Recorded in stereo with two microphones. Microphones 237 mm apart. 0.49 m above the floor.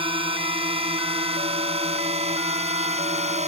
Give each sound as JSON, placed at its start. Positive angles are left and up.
{"t": 0.0, "sound": "a drone", "side_deg": -25}